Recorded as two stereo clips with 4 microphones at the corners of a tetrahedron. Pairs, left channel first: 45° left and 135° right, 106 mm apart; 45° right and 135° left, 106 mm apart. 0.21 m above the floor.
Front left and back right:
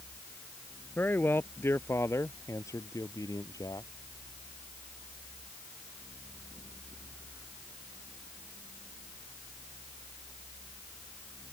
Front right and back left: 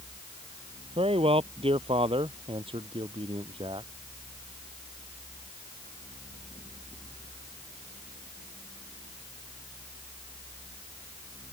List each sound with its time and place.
1.0 s a man speaking: 115° left; by 3.9 s 100° left